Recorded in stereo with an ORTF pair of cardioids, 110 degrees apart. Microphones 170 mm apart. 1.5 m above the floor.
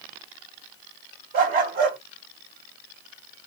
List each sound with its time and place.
1.3 s a dog barking: 65° right, 3 m